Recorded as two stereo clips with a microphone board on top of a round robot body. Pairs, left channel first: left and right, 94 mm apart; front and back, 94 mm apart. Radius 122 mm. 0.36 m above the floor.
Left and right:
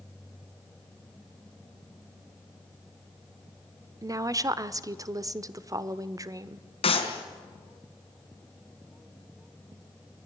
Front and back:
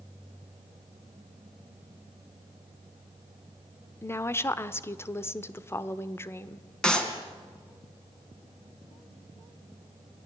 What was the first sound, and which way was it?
A woman speaking, 55° right.